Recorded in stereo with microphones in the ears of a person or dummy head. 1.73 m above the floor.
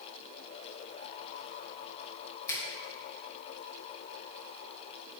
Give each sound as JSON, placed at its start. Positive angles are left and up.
{"t": 2.5, "sound": "a finger snap", "side_deg": 20, "distance_m": 1.6}